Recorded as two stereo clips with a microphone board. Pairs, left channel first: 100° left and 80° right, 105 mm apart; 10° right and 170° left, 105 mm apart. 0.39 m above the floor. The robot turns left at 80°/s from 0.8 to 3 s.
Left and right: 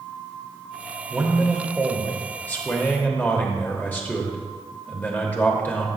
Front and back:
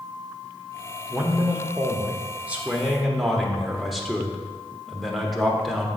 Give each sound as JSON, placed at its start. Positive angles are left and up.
{"t": 1.1, "sound": "a man speaking", "azimuth_deg": -130, "distance_m": 0.8}